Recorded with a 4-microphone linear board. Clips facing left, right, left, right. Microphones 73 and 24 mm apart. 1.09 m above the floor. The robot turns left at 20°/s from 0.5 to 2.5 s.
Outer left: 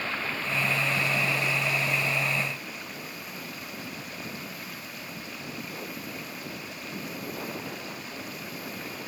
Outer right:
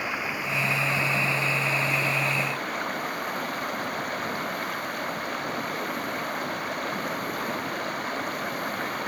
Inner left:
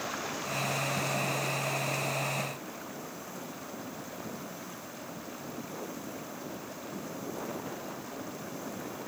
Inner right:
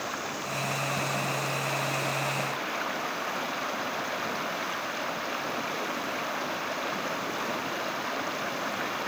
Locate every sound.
0.0 s running water: 10° right; by 9.1 s 50° right